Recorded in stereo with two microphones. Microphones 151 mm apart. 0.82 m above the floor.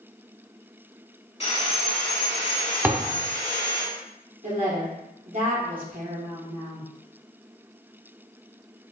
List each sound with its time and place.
1.4 s sawing: 40° left (ahead or behind), 1.4 m
2.8 s a thud: 15° right (ahead or behind), 0.7 m
4.4 s a woman speaking: 60° right (ahead or behind), 1.9 m